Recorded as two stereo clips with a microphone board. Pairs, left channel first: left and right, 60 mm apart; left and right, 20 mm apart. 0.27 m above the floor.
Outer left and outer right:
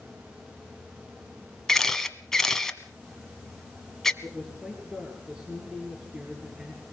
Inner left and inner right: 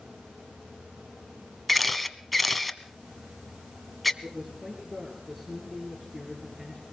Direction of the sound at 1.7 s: 5° left (ahead or behind).